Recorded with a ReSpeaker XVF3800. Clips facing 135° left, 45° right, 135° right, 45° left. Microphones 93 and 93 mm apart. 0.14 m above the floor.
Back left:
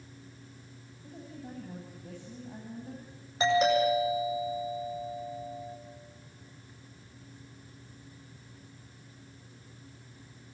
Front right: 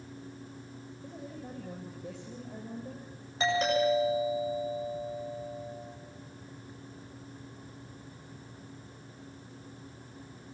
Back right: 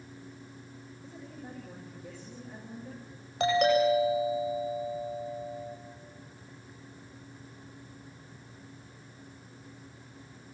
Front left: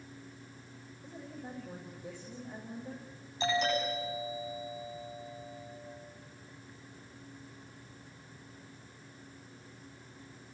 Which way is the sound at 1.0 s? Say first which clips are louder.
Front right 1 dB, front left 1 dB; 40° right.